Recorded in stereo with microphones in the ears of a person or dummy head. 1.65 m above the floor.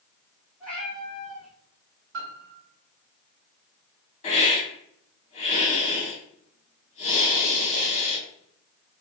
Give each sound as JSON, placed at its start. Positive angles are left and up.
{"t": 0.6, "sound": "a cat meowing", "side_deg": 5, "distance_m": 1.7}
{"t": 2.1, "sound": "a piano", "side_deg": -50, "distance_m": 0.7}
{"t": 4.2, "sound": "a hiss", "side_deg": 35, "distance_m": 1.7}